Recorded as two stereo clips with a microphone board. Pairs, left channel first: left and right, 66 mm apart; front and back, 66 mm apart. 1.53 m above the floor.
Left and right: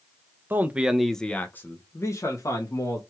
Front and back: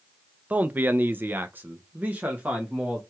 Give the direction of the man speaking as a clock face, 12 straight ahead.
4 o'clock.